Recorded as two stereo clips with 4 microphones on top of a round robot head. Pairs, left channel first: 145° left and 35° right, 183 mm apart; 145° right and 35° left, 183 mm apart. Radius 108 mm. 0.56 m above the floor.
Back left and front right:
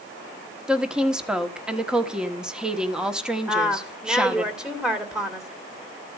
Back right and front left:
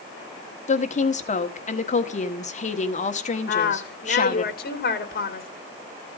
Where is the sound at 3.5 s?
120° right, 2 m.